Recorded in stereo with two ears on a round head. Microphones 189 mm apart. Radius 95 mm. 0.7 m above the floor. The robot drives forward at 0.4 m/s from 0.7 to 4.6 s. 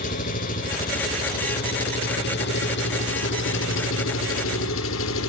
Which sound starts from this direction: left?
An engine running, at 0.0 s.